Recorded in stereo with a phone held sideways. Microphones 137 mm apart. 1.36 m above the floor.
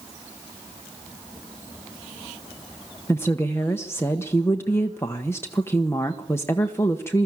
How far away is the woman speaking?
About 1.1 m.